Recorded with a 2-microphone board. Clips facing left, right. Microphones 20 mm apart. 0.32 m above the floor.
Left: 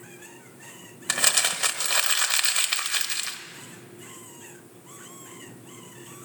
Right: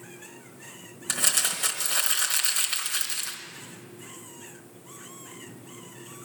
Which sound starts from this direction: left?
Crumpling, at 1.1 s.